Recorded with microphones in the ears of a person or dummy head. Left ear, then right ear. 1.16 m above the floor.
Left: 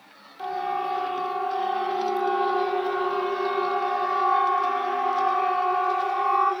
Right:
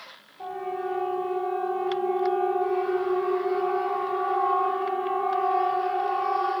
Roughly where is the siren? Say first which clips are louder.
Left 4 dB; left.